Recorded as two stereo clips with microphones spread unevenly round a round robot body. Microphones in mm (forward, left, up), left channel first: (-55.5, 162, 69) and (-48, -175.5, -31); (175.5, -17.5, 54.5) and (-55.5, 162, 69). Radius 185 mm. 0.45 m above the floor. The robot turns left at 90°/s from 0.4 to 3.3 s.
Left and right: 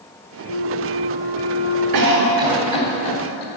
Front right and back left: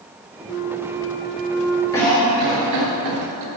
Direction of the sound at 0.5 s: 95° right.